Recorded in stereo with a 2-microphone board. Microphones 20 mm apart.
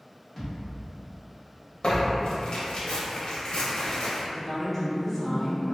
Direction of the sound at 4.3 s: Centre (ahead or behind).